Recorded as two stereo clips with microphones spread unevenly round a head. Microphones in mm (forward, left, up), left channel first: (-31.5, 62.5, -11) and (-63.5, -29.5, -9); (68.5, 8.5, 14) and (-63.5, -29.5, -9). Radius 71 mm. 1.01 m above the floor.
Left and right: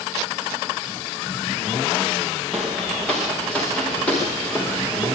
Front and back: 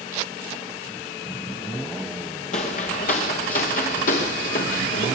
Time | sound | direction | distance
2.5 | footsteps | 15° right | 3.5 m